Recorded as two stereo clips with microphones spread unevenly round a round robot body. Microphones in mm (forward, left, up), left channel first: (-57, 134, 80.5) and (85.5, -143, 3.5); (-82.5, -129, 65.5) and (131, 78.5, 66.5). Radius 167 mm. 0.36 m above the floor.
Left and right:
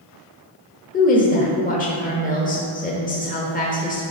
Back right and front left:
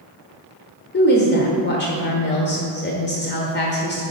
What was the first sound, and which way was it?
A woman speaking, 175° right.